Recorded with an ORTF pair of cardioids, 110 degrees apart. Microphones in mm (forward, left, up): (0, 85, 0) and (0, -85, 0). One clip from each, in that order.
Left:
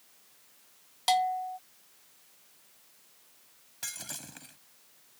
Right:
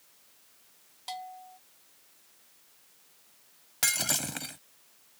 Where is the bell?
65° left.